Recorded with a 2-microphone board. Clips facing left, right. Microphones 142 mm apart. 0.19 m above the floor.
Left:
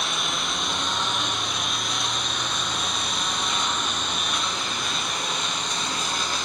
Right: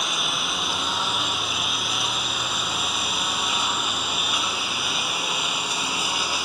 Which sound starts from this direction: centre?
A lawn mower, at 0.0 s.